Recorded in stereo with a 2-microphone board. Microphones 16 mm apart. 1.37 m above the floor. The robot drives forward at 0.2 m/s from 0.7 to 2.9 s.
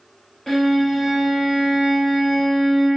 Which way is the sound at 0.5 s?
20° left (ahead or behind).